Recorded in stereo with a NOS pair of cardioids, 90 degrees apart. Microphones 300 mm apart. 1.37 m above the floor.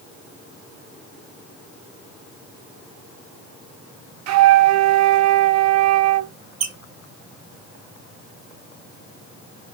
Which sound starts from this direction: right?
A flute, at 4.3 s.